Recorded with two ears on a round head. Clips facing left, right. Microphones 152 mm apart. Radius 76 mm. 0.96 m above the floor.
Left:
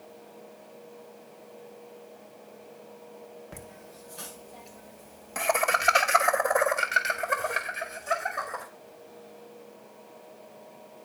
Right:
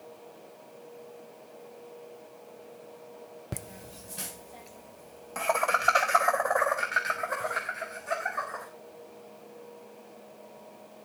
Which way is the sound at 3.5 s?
45° right (ahead or behind).